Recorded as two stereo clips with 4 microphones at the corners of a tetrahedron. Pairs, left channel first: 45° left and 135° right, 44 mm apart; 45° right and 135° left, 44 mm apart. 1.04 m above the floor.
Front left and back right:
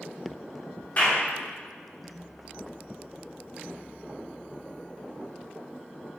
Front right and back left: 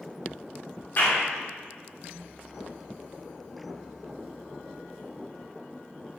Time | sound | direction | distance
1.0 | a clap | 5° right | 2.5 m